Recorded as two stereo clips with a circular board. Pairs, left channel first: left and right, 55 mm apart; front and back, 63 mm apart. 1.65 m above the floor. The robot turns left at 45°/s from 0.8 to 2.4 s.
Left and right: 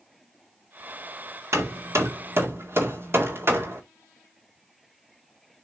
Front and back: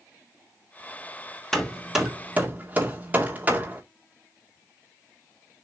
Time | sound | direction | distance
1.5 | hammering | 80° right | 1.9 m